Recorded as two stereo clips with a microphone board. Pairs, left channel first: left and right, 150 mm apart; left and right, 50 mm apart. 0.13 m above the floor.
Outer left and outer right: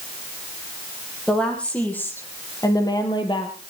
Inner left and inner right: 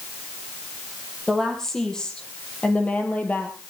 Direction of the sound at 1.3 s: 5° left (ahead or behind).